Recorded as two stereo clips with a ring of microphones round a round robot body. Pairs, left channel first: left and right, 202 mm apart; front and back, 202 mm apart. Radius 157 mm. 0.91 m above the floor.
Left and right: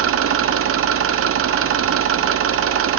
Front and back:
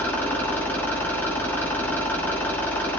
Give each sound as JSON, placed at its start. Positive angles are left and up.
{"t": 0.0, "sound": "an engine running", "azimuth_deg": -85, "distance_m": 1.2}